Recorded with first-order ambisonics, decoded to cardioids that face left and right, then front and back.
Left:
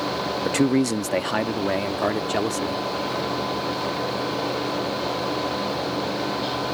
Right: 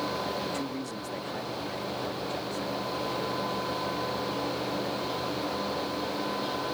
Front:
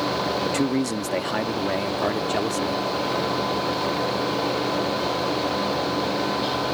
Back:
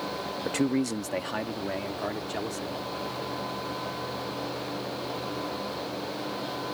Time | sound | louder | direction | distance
0.5 | a man speaking | left 12 dB, front 5 dB | 90° left | ?